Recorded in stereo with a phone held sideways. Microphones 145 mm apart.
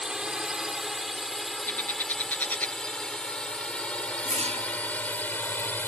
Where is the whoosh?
45° right (ahead or behind).